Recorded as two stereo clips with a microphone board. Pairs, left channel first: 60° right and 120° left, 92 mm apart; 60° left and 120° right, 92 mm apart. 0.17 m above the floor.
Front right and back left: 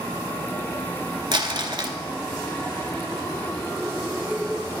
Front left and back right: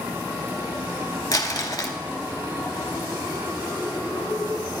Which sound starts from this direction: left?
Crumpling, at 1.3 s.